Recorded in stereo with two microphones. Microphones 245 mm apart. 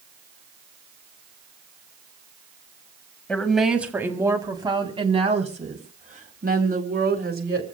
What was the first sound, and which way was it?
A woman speaking, 5° left (ahead or behind).